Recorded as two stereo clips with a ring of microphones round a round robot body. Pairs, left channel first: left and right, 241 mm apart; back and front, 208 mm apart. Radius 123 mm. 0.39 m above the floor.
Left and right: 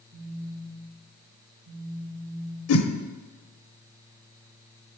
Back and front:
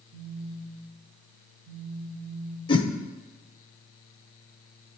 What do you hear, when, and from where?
0.1 s a phone buzzing: 35° right, 3 m
2.7 s a whoosh: 115° left, 0.7 m